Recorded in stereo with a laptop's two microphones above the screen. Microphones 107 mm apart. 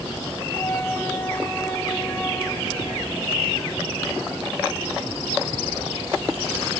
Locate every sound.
0.5 s a flute: 25° left (ahead or behind), 0.9 m